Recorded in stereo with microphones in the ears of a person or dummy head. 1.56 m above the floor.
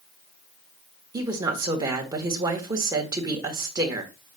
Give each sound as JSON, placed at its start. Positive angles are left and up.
{"t": 1.1, "sound": "a woman speaking", "side_deg": -20, "distance_m": 1.3}